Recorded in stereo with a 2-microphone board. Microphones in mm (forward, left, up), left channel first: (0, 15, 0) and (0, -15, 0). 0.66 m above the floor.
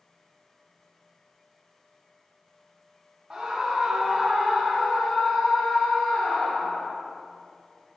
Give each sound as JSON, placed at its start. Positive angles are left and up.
{"t": 3.3, "sound": "a scream", "side_deg": -10, "distance_m": 1.9}